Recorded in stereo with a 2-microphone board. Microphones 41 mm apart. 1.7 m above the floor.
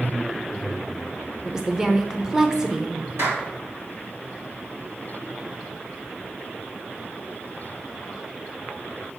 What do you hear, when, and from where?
1.4 s a woman speaking: 15° right (ahead or behind), 0.8 m
3.2 s a clap: 75° right (ahead or behind), 3 m